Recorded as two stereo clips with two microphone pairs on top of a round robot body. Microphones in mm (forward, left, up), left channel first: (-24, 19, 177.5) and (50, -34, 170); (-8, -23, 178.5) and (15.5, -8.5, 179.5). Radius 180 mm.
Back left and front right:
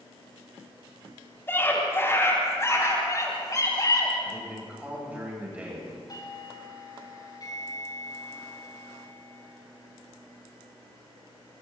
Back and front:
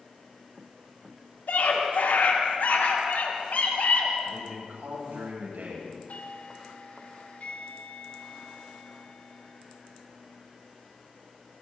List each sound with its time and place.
1.5 s a scream: 145° right, 7 m; by 4.1 s 170° right, 7 m
4.2 s a man speaking: 40° left, 10 m
6.1 s a doorbell: 170° right, 4.5 m